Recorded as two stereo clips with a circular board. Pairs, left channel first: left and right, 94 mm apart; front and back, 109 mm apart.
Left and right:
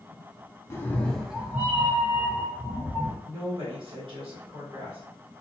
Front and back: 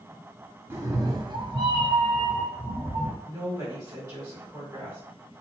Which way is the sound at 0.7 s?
130° left.